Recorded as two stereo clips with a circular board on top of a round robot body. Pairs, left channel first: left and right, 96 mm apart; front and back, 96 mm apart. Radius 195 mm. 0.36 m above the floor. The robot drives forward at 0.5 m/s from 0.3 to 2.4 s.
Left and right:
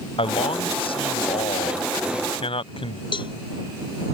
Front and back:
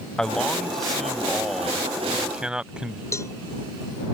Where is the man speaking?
85° left; by 3.0 s 100° left.